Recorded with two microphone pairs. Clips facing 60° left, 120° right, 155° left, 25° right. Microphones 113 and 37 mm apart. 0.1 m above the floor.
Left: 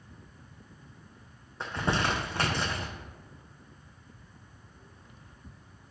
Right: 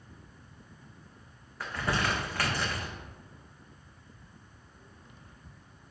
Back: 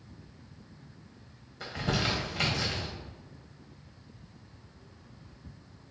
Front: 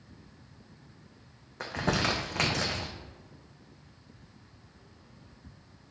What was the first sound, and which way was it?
Crumpling, straight ahead.